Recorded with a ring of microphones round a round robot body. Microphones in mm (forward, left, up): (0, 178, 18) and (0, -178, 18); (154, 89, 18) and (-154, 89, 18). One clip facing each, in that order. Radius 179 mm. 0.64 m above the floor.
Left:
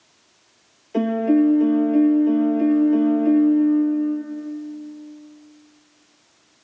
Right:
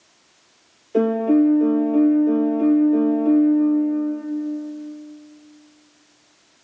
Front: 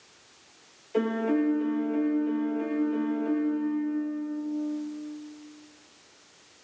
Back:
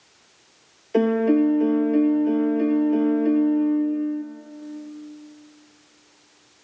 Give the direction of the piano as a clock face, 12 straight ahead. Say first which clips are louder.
Right 1 dB, back 7 dB; 7 o'clock.